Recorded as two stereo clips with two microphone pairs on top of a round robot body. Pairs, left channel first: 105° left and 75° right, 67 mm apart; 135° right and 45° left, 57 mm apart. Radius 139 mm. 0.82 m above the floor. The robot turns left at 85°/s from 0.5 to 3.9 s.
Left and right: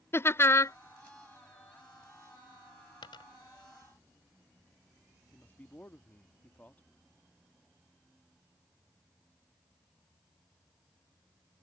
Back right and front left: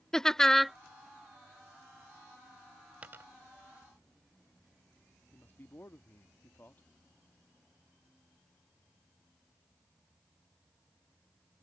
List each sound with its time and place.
0.1 s laughter: 150° left; by 0.8 s 130° left
3.0 s a dropped coin: 110° left; by 3.2 s 95° left
5.3 s a man speaking: 175° left